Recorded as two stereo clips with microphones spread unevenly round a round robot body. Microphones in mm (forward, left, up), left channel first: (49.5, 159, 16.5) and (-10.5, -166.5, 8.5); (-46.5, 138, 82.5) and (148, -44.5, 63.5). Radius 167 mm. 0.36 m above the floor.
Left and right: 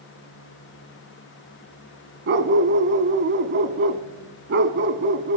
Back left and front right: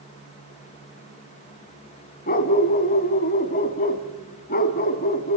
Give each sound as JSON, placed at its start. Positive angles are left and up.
{"t": 2.3, "sound": "a dog barking", "azimuth_deg": -160, "distance_m": 0.9}